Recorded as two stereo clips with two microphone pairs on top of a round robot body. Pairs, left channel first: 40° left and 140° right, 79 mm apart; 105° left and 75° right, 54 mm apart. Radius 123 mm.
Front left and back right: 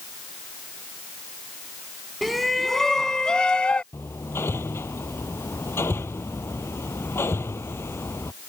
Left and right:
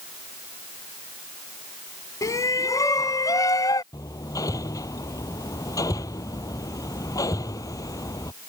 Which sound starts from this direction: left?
Hammering, at 3.9 s.